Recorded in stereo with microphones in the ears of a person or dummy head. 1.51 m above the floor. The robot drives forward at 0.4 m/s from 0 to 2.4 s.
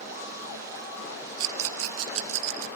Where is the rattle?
80° right, 1.4 m; by 2.7 s 75° right (ahead or behind), 1.4 m.